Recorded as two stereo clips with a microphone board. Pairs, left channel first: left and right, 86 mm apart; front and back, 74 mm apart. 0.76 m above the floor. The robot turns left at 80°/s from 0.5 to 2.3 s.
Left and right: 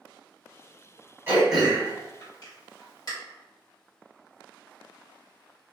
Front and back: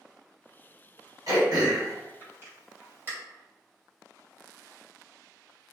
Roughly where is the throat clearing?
Behind right.